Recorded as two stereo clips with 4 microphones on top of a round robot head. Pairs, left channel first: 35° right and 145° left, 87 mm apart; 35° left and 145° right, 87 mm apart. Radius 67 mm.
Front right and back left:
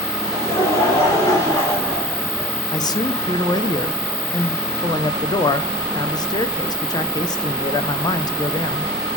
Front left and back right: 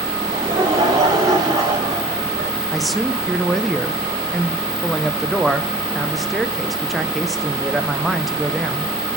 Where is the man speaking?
55° right, 0.6 m.